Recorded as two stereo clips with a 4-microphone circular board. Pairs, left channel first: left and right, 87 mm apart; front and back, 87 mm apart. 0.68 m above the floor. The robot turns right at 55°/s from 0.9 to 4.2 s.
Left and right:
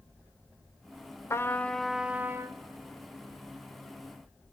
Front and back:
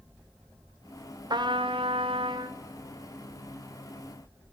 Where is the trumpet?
145° left, 1.0 m; by 2.6 s 145° right, 1.0 m.